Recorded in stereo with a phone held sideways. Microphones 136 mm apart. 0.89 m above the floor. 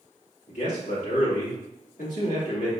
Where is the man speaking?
70° left (ahead or behind), 2.5 m.